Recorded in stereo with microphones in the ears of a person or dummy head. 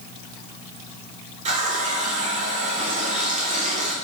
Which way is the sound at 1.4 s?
40° right (ahead or behind).